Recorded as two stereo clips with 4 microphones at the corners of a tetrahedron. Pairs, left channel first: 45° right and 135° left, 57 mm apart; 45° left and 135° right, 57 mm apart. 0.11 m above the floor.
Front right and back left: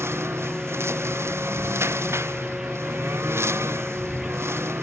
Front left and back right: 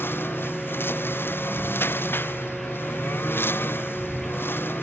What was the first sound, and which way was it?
A lawn mower, 95° left.